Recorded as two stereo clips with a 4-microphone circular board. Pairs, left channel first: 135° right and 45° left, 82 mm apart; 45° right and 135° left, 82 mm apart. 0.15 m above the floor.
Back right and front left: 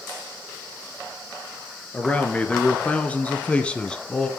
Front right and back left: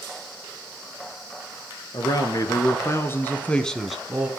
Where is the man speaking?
65° right, 3 m; by 4.3 s 160° left, 1.6 m.